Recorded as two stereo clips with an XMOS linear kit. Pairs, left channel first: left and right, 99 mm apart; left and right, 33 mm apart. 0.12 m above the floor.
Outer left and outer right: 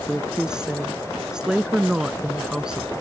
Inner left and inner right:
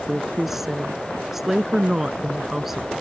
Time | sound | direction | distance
0.1 | a woman speaking | 10° right (ahead or behind) | ?